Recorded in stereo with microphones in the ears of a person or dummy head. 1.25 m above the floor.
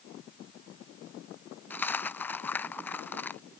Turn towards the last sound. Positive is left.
turn(degrees=5)  # may be behind; listen again after turning